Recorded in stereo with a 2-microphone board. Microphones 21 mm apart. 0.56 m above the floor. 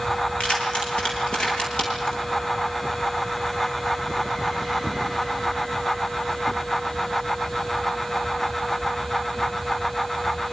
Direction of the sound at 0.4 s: 75° left (ahead or behind).